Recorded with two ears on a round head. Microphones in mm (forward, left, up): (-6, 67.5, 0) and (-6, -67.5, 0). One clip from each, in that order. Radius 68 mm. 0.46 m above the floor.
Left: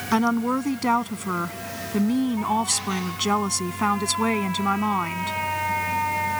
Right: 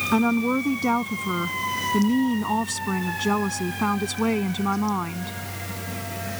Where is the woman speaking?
45° left (ahead or behind).